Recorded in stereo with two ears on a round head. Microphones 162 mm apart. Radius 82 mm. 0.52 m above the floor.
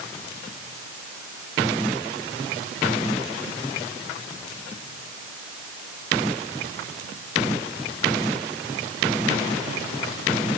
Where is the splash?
No splash in this recording.